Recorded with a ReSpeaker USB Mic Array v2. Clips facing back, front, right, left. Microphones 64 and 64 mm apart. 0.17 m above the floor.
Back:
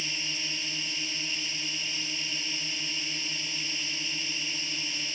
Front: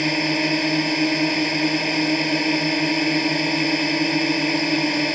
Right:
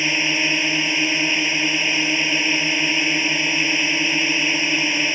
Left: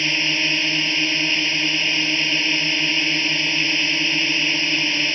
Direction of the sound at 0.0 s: 15° right.